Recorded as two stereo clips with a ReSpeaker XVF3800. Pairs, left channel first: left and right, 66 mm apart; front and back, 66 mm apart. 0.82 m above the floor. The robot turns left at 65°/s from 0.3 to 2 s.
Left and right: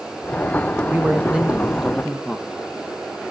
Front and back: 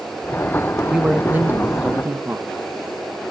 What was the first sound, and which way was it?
A man speaking, 115° right.